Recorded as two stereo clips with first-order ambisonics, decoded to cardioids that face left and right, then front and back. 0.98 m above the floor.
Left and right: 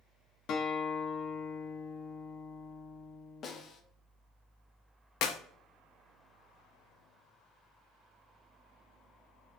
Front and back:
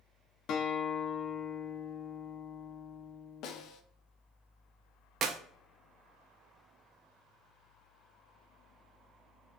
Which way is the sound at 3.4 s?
35° left.